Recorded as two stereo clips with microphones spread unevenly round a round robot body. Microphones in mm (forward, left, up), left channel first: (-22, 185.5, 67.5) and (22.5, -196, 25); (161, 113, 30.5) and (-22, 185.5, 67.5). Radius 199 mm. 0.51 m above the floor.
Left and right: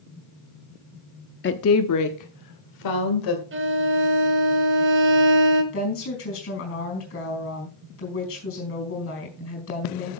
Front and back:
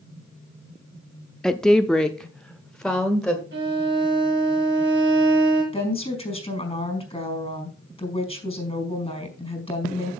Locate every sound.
1.4 s a woman speaking: 45° left, 0.7 m; by 3.4 s 60° left, 2 m
3.5 s a violin: 145° right, 1.5 m
5.7 s a woman speaking: 40° left, 4.5 m